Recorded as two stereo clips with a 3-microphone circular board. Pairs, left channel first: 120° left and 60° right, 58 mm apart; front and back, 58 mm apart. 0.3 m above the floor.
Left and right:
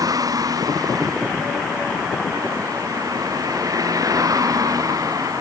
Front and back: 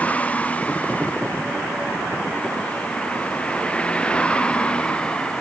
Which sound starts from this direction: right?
A vehicle, at 0.0 s.